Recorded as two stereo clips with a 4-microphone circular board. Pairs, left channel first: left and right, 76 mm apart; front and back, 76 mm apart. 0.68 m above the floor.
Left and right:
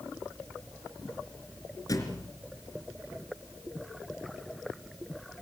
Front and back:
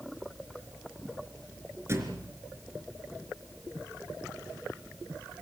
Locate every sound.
1.9 s a thud: 125° left, 3.5 m